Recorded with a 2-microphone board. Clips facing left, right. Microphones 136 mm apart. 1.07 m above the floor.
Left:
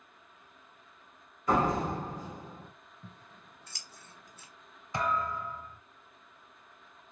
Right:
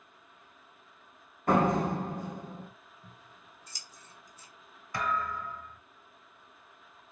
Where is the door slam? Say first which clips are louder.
Right 2 dB; 60° right (ahead or behind), 1.3 m.